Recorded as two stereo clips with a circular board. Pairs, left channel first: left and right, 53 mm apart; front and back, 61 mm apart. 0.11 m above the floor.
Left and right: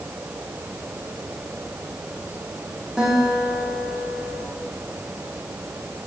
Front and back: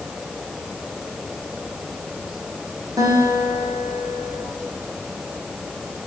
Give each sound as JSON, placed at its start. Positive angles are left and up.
{"t": 3.0, "sound": "a guitar", "azimuth_deg": -170, "distance_m": 4.5}